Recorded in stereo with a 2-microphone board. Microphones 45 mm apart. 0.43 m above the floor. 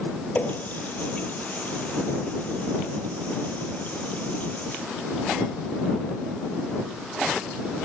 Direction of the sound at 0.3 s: 35° left (ahead or behind).